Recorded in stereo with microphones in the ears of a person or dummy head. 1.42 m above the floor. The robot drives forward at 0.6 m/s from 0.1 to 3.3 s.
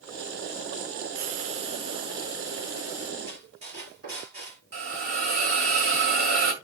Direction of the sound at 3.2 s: 45° right (ahead or behind).